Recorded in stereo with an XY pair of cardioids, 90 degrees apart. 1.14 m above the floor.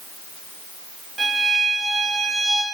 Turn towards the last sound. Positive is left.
turn(degrees=-35)